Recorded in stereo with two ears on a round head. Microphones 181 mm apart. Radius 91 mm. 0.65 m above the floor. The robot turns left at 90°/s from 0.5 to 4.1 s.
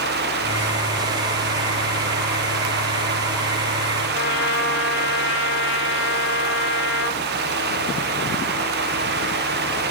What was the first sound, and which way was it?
A trumpet, 60° left (ahead or behind).